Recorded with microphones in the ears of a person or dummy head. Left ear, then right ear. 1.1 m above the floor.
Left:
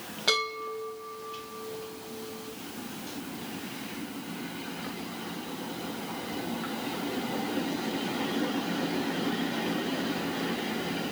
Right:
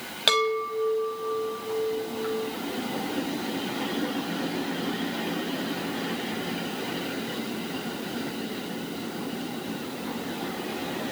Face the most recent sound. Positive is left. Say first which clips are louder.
# right 5 dB
turn(degrees=-75)  # may be behind; listen again after turning